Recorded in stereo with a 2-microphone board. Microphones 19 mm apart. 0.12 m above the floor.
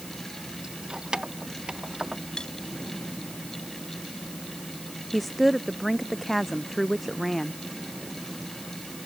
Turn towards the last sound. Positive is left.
turn(degrees=10)  # may be behind; listen again after turning